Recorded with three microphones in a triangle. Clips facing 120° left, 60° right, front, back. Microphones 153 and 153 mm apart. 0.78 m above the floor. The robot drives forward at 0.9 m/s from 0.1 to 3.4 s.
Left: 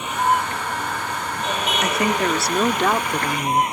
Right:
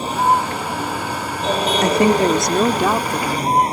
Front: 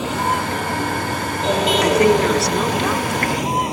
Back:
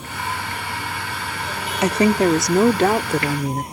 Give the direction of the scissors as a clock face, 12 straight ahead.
No scissors in this recording.